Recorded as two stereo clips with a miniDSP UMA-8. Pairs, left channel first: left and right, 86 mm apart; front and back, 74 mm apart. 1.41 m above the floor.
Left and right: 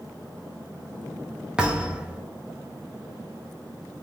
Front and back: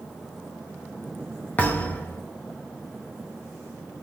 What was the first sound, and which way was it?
A thud, 25° right.